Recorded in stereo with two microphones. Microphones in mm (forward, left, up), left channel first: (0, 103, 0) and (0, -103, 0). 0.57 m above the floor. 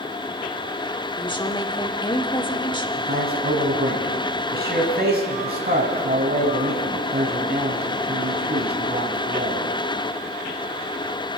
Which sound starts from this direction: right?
A man speaking, at 3.0 s.